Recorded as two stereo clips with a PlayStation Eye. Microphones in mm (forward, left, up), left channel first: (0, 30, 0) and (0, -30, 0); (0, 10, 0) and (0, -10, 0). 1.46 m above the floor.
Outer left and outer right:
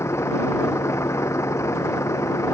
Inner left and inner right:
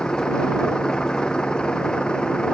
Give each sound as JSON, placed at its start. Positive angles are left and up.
{"t": 0.0, "sound": "a vehicle", "side_deg": 50}